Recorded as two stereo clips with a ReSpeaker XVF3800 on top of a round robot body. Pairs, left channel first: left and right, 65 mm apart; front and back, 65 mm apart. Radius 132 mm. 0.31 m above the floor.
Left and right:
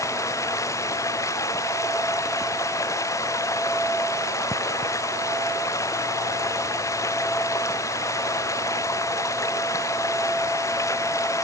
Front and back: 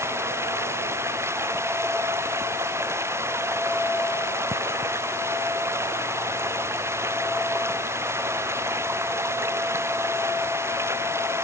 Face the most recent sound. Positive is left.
turn(degrees=130)